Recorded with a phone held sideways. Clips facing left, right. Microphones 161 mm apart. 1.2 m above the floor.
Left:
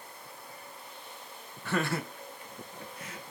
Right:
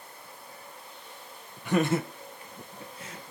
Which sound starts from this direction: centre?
Laughter, at 1.6 s.